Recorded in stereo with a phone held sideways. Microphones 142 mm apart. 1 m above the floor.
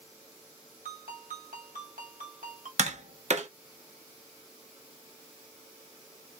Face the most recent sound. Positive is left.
turn(degrees=-50)  # may be behind; listen again after turning